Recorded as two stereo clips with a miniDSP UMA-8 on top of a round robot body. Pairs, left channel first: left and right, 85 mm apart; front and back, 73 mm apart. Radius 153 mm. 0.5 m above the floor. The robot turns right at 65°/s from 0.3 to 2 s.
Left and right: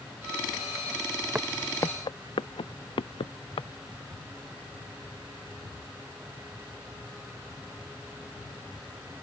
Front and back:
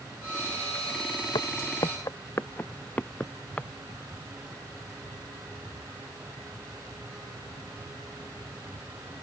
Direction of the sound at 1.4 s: 15° right.